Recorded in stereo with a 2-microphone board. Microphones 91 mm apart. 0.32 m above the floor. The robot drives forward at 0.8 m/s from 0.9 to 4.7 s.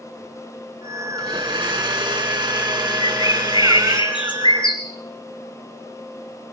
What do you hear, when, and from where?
1.2 s a blender: 70° right (ahead or behind), 3.5 m; by 4.0 s 50° right (ahead or behind), 4.5 m
3.0 s a bird: 80° left, 3.5 m; by 4.8 s 65° left (ahead or behind), 3.5 m